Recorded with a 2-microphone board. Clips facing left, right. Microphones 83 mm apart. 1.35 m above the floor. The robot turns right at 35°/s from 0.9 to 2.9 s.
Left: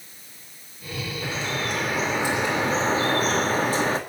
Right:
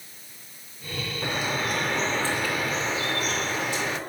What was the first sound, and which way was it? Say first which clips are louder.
Dripping: right 1 dB; 20° right.